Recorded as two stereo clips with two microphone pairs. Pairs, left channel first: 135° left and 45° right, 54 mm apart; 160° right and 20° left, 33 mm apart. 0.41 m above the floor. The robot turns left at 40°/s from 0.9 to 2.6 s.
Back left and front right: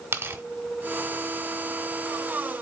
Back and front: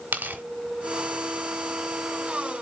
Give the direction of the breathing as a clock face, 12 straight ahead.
No breathing in this recording.